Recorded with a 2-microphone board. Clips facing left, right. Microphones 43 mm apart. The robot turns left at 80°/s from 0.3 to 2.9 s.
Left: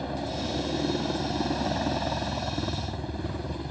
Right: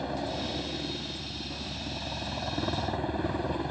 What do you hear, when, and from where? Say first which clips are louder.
0.0 s a helicopter: left 1 dB; 175° right; by 3.7 s 25° right